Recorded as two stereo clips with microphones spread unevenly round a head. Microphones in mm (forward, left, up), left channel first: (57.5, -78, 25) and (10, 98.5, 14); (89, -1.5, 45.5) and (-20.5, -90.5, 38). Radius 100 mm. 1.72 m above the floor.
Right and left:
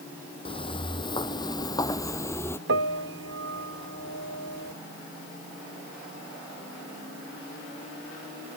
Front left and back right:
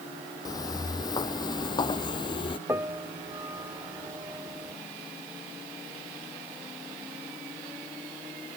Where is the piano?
140° left.